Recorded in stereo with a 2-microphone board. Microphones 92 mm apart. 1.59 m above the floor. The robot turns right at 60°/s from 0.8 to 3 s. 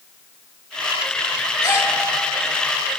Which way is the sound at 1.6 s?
35° left (ahead or behind).